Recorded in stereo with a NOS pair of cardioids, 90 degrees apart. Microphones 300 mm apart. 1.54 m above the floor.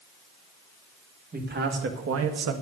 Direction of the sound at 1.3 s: 30° right.